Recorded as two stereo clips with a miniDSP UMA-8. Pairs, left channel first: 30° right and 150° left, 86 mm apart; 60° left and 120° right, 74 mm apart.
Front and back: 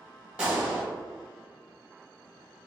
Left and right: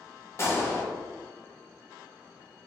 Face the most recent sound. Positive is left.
turn(degrees=80)